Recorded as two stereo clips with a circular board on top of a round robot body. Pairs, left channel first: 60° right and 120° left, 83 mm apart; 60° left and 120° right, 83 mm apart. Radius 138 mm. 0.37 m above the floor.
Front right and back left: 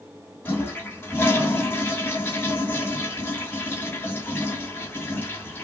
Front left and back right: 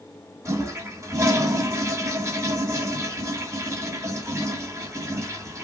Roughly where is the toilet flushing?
Right.